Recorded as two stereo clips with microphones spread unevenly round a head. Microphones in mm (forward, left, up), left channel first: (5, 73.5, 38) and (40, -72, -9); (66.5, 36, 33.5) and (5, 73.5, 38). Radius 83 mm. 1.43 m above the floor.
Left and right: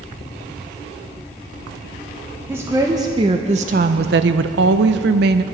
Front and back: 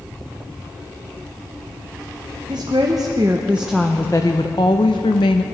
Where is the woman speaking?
160° right, 1.2 m; by 5.4 s 55° right, 1.0 m.